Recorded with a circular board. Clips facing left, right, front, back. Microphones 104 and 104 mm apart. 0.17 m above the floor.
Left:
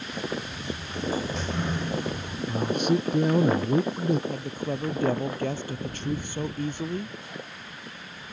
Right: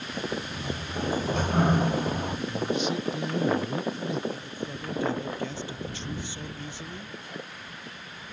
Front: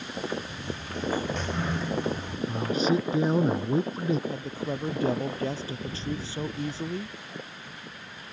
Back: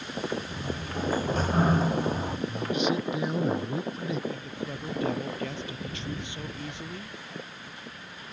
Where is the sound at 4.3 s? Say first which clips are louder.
Left 5 dB, front 3 dB; 55° left.